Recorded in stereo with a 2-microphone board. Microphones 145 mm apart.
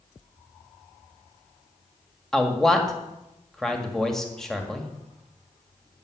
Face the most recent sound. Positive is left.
turn(degrees=5)  # may be behind; listen again after turning